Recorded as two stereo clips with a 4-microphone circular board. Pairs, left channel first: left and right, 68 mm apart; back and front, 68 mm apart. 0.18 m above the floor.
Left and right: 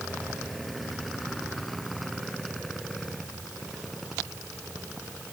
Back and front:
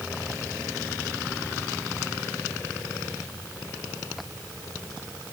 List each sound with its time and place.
Only background noise.